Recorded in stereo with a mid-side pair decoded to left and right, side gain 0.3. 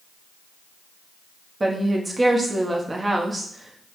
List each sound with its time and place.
1.6 s a woman speaking: 35° right, 1.0 m